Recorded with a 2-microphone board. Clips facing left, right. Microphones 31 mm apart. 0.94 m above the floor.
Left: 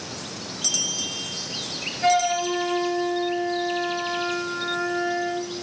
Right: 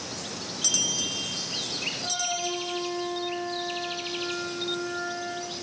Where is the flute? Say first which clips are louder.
Left 15 dB; 70° left (ahead or behind), 10 m.